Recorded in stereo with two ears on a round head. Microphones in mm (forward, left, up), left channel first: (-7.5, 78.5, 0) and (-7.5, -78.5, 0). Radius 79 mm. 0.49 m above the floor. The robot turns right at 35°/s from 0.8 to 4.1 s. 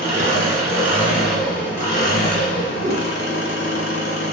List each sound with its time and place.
0.0 s an engine running: 20° right, 0.8 m; by 4.3 s 100° left, 0.8 m
2.8 s a whoosh: 35° right (ahead or behind), 0.7 m; by 3.1 s 25° right (ahead or behind), 0.7 m